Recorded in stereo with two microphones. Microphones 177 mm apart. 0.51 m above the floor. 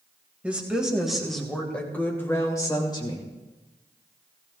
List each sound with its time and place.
0.4 s a woman speaking: 10° right (ahead or behind), 2.5 m; by 3.2 s 30° left (ahead or behind), 2 m